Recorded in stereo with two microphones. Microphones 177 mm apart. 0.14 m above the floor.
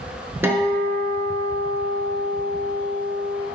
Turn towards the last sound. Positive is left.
turn(degrees=-15)  # may be behind; listen again after turning